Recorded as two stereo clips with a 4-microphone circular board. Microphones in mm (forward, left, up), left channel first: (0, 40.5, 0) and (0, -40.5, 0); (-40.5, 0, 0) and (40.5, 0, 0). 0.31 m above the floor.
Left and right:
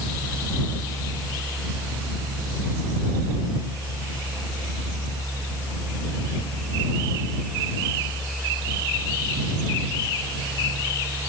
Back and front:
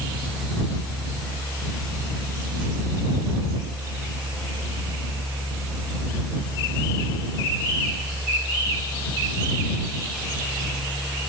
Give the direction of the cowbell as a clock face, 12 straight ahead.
I don't hear a cowbell.